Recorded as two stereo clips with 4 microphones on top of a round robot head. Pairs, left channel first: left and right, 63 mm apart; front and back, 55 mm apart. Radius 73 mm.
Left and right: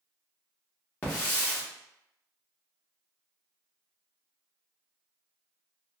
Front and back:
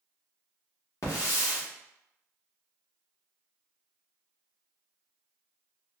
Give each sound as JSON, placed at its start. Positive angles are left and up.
{"t": 1.0, "sound": "a hiss", "azimuth_deg": 30, "distance_m": 1.2}